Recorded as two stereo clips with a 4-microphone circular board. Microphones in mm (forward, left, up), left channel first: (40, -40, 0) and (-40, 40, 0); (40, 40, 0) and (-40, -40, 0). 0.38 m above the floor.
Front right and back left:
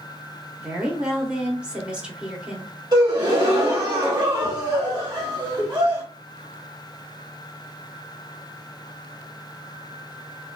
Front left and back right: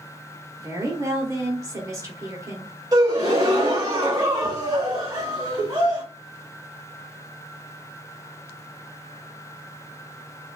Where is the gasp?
175° left, 1.1 m.